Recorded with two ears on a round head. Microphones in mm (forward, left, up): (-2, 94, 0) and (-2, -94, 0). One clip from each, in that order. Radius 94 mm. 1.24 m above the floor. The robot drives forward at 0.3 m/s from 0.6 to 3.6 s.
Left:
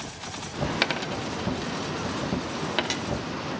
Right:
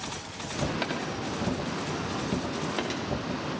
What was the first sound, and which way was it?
A dropped coin, 55° left (ahead or behind).